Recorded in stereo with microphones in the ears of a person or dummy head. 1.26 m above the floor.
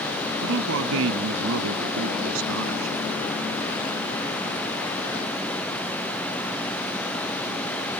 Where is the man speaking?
65° right (ahead or behind); by 3.0 s 75° right (ahead or behind).